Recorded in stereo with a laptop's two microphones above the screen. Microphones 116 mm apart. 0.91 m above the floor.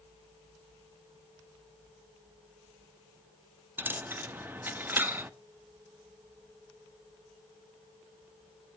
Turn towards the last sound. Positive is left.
turn(degrees=-15)  # may be behind; listen again after turning